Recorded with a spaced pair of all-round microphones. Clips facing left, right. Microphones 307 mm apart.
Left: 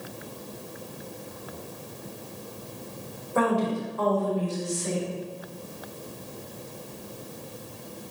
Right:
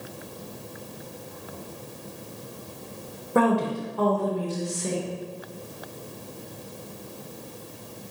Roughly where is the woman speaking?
Right.